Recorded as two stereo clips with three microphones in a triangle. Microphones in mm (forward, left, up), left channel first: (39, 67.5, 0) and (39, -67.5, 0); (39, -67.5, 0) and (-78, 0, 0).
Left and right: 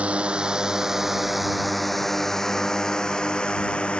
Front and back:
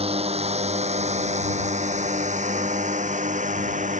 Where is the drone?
170° right; by 4.0 s 170° left.